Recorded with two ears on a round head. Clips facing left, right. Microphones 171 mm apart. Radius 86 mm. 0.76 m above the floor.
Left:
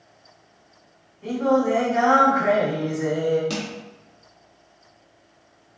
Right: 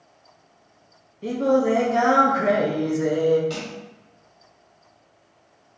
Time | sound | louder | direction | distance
1.2 | singing | right 1 dB | 45° right (ahead or behind) | 0.7 m
3.5 | crushing | left 2 dB | 60° left (ahead or behind) | 1.0 m